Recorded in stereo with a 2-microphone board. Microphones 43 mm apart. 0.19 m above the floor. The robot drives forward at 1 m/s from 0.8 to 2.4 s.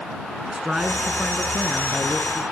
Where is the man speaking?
20° right (ahead or behind), 2.0 m; by 2.4 s 10° right (ahead or behind), 3.5 m.